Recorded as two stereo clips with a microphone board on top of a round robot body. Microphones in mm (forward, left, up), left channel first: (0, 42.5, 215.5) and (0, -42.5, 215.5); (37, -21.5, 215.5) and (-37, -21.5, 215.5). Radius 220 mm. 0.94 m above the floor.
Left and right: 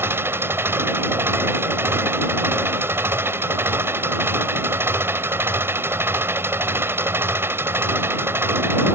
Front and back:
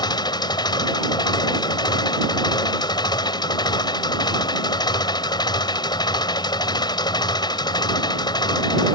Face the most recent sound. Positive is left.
turn(degrees=-25)